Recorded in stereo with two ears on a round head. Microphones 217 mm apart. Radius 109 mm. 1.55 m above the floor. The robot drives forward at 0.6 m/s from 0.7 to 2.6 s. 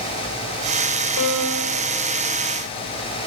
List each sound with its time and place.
1.2 s a piano: 80° left, 7 m; by 1.8 s 85° left, 7 m